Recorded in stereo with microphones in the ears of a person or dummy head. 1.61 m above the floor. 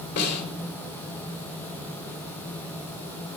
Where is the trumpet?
I don't hear a trumpet.